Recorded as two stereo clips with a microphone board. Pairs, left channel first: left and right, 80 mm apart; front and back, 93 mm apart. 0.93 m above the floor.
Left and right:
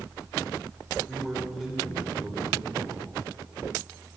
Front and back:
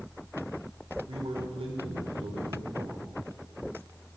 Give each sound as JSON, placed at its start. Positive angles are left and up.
{"t": 1.1, "sound": "a man speaking", "azimuth_deg": -175, "distance_m": 2.5}